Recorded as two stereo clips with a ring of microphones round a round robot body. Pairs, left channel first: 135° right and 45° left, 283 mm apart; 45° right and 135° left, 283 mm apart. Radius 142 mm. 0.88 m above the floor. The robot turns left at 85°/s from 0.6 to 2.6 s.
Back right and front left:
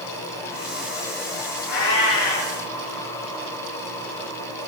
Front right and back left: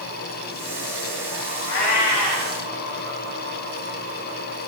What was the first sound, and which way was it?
A cat meowing, 85° right.